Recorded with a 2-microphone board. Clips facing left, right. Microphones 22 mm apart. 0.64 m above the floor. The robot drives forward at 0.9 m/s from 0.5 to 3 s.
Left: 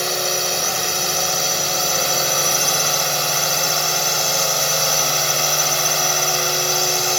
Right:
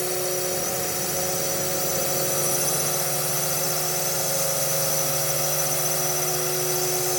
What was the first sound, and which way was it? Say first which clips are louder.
A drone: left 6 dB; 60° left (ahead or behind).